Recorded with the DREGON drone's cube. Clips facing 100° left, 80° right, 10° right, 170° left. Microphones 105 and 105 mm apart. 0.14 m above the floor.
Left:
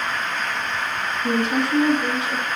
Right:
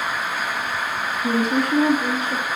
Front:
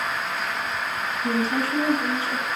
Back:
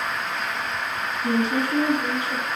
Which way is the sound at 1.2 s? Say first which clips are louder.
Right 1 dB, back 2 dB; 115° right.